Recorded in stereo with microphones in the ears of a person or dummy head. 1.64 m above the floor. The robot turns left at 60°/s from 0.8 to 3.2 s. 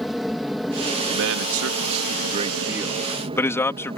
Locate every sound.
0.0 s an aircraft: centre (ahead or behind); by 4.0 s 30° right (ahead or behind)
1.1 s a man speaking: 65° right; by 4.0 s 170° left